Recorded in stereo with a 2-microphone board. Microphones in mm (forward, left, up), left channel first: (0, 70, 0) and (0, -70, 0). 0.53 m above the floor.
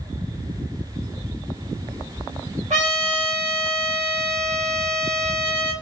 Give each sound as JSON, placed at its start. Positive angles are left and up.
{"t": 2.7, "sound": "a trumpet", "side_deg": -60, "distance_m": 1.5}